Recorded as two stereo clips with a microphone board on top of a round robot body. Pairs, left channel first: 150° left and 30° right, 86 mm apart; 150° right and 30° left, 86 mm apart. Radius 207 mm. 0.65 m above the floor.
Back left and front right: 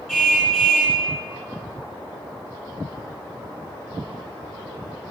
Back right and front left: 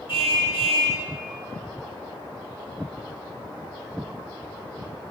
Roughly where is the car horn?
Behind right.